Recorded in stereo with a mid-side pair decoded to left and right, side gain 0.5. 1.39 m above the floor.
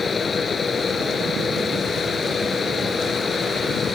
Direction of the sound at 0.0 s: 30° left.